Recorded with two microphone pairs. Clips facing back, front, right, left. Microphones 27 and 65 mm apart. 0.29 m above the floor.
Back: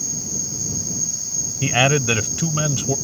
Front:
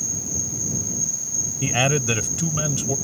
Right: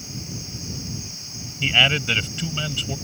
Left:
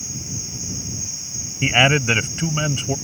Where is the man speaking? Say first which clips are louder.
Back 4 dB, left 4 dB; 120° left.